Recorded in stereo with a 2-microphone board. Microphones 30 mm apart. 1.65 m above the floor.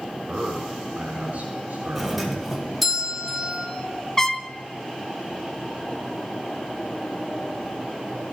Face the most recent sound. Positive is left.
turn(degrees=15)  # may be behind; listen again after turning